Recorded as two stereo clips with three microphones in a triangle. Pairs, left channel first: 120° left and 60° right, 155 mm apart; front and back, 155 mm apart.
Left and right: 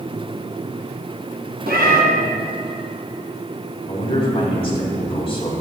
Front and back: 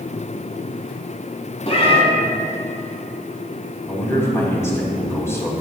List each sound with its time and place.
1.7 s a cat meowing: 50° right, 1.5 m
3.9 s a man speaking: 70° left, 3 m